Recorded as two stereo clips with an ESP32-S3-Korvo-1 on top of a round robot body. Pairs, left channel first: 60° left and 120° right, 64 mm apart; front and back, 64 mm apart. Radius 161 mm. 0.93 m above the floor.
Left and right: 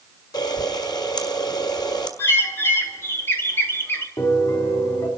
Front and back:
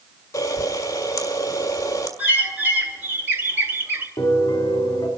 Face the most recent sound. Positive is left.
turn(degrees=30)